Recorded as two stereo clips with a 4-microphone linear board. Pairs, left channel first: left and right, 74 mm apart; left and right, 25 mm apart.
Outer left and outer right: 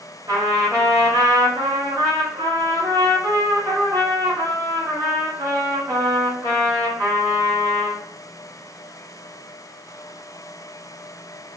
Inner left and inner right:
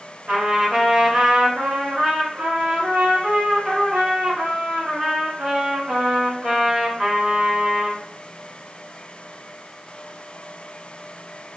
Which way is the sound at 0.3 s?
65° right (ahead or behind).